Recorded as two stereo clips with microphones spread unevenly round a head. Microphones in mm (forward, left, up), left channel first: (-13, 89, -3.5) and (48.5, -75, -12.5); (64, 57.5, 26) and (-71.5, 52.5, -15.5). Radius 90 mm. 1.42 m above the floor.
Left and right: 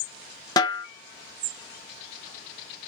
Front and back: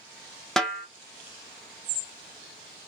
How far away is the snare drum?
About 0.5 m.